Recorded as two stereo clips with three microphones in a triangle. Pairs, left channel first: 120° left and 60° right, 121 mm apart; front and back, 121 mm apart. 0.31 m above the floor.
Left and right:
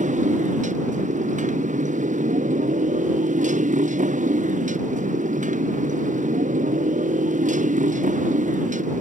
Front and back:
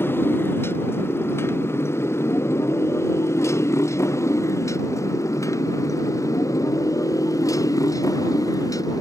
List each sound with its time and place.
0.0 s a motorcycle: 75° right; by 9.0 s 65° right